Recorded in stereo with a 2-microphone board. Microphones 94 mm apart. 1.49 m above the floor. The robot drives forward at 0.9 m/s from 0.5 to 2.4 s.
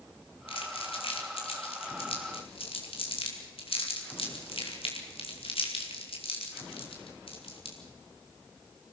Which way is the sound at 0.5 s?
75° left (ahead or behind).